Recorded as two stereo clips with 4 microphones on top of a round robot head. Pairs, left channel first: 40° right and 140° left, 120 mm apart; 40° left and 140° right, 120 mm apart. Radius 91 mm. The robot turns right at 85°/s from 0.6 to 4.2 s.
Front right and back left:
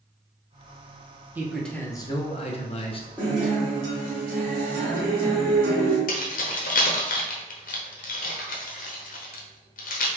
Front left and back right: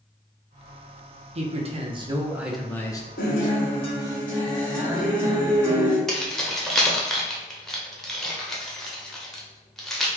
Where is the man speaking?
150° right, 0.8 m; by 3.1 s 5° right, 0.8 m.